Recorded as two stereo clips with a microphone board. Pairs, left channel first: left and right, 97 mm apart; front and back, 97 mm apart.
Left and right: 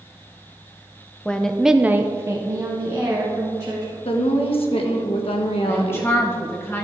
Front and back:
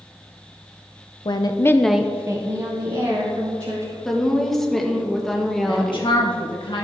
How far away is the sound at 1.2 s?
About 0.8 m.